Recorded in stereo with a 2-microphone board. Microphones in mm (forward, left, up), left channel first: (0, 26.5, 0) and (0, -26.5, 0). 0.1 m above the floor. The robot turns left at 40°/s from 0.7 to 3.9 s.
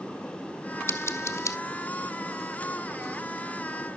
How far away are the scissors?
About 1.1 m.